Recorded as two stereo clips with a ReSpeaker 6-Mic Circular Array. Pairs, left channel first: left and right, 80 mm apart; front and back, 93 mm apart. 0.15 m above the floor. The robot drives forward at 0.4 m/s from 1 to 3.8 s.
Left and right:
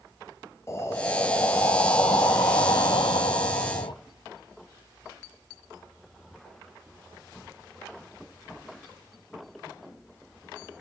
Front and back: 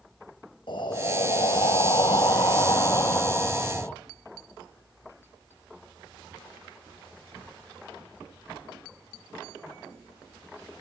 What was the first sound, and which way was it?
Breathing, 30° left.